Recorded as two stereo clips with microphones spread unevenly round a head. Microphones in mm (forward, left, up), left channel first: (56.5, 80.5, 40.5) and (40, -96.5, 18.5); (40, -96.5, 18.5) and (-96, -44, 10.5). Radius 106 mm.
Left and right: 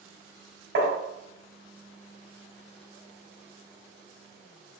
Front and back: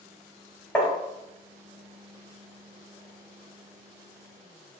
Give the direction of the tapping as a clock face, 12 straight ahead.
3 o'clock.